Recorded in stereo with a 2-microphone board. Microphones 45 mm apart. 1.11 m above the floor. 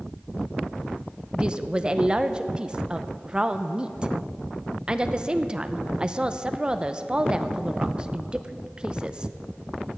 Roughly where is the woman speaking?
Right.